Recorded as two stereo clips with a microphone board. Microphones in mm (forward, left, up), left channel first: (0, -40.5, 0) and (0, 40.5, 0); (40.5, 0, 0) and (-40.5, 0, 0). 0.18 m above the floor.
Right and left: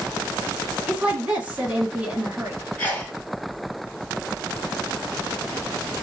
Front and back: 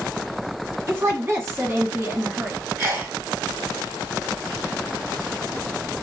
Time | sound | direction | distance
0.9 | a woman speaking | 150° left | 1.2 m
2.8 | a sneeze | 135° right | 1.8 m